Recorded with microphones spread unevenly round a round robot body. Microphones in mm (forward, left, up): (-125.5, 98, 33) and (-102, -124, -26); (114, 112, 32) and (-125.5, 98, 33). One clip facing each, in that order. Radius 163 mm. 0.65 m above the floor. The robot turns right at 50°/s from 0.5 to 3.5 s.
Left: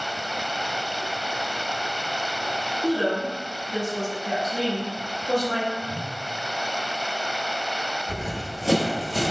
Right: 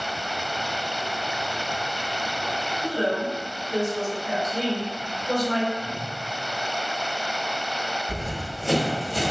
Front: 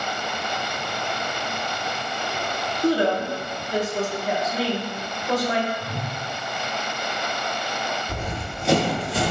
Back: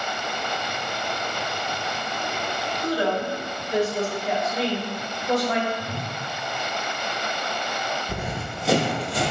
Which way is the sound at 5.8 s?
160° right.